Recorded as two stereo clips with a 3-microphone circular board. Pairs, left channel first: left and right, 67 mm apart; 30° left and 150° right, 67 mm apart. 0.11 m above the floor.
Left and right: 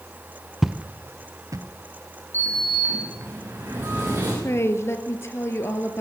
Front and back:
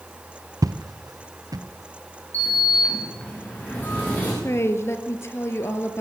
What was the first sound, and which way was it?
Footsteps, 175° right.